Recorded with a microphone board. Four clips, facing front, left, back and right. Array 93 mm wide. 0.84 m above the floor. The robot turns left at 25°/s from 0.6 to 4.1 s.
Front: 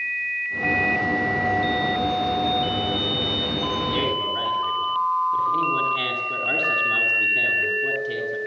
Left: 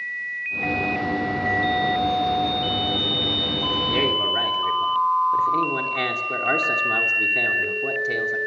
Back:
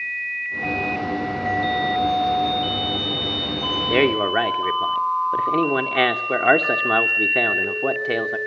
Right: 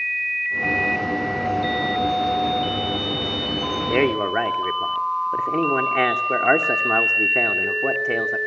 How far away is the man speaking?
About 3 m.